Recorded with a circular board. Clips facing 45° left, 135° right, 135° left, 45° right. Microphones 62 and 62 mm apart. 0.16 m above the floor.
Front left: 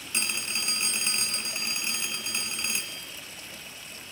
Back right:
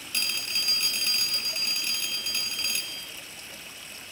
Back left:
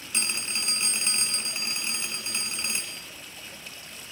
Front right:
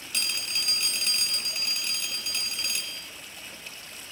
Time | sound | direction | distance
0.1 | a phone ringing | 95° left | 0.9 m